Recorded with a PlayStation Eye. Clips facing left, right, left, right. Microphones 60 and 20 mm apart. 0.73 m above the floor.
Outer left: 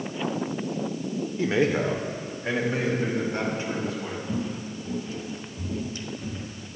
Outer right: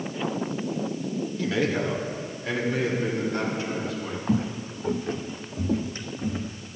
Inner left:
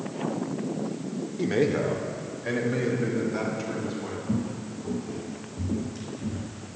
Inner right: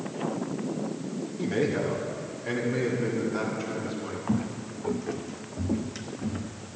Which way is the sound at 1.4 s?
30° left (ahead or behind).